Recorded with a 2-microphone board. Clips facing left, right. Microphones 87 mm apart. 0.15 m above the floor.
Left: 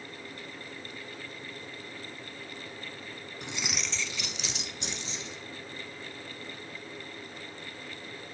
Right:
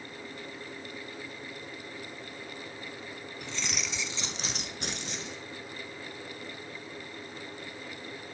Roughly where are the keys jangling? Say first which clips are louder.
Left 1 dB; left.